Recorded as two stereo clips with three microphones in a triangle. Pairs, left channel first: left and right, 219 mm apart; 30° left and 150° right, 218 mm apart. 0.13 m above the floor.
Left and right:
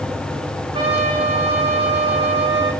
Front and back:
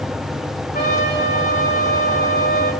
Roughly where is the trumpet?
Ahead.